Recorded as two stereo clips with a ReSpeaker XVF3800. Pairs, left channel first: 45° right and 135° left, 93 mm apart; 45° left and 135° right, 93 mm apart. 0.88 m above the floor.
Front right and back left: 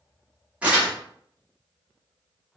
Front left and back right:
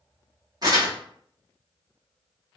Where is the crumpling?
155° right, 1.3 m.